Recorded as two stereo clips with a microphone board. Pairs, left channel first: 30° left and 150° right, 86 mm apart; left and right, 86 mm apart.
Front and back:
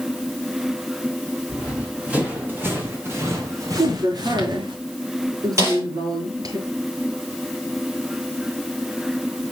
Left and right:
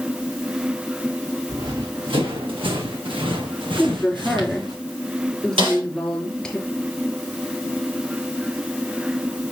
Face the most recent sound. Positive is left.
turn(degrees=-95)